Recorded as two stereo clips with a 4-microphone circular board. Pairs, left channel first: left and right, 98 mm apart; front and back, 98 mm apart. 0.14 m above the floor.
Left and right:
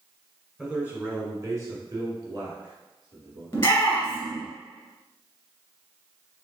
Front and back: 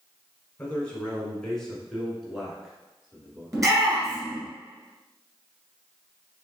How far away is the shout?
About 2.0 m.